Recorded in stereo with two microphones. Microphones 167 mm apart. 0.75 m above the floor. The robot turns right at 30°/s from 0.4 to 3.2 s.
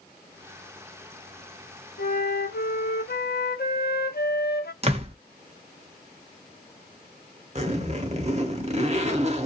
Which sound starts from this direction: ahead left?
A flute, at 2.0 s.